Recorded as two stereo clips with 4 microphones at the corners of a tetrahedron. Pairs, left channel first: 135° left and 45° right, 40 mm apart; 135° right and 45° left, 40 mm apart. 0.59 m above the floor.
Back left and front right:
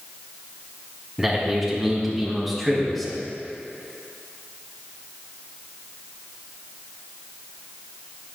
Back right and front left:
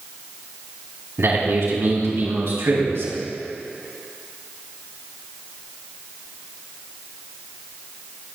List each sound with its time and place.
1.2 s a man speaking: 40° left, 4.5 m; by 3.2 s 50° left, 3.5 m